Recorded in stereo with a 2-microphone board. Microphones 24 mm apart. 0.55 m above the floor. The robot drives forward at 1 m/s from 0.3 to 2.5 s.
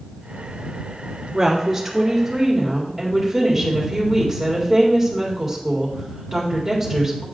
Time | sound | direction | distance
1.3 | a woman speaking | 10° right (ahead or behind) | 0.9 m